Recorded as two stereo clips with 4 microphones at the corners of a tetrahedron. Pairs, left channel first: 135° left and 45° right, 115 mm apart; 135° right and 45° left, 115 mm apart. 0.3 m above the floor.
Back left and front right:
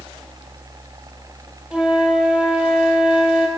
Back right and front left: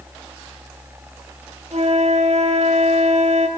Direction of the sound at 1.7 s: 35° left.